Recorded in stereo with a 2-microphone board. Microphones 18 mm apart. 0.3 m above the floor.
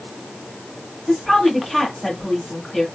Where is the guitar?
I don't hear a guitar.